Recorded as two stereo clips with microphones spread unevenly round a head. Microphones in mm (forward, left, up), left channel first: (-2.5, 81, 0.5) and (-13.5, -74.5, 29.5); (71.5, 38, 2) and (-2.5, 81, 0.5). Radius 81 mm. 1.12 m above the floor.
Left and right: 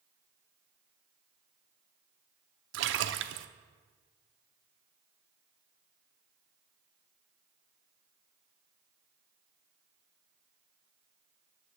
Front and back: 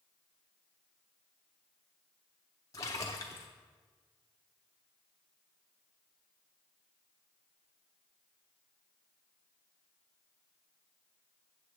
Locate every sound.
2.7 s a splash: 100° right, 0.6 m